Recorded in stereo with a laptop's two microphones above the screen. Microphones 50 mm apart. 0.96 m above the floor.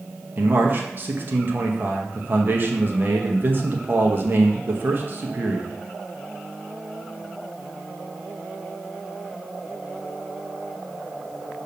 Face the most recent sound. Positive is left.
turn(degrees=-40)  # may be behind; listen again after turning